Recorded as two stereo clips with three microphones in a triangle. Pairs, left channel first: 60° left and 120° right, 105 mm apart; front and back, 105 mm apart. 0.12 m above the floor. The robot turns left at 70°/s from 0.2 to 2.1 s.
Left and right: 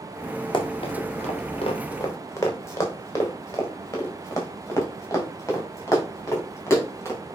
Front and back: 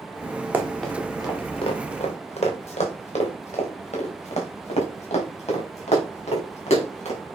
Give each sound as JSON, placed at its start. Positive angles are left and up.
{"t": 0.5, "sound": "running footsteps", "azimuth_deg": 105, "distance_m": 2.5}